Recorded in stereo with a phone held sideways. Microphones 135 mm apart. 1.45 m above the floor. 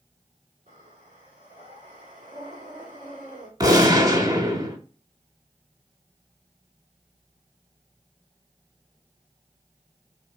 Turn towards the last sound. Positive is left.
turn(degrees=-30)  # may be behind; listen again after turning